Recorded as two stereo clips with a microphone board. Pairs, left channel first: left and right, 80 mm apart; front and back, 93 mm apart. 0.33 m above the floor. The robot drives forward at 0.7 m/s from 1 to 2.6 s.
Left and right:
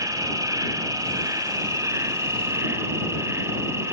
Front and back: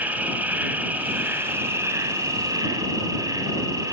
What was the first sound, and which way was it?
An insect, 115° right.